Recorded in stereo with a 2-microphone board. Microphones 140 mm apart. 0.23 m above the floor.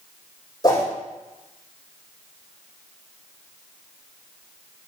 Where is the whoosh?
30° left (ahead or behind), 5 m.